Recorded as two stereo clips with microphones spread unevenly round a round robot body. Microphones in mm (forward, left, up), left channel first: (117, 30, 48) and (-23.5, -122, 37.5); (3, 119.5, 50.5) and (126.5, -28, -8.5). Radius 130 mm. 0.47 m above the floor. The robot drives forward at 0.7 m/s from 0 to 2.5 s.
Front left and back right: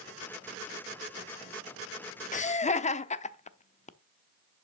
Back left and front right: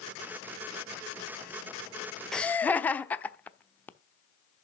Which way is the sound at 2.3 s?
20° left.